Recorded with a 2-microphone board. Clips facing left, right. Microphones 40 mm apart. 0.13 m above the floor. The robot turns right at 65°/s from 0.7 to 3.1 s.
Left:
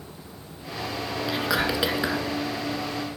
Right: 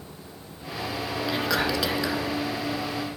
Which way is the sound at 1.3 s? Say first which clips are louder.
Even; 5° left.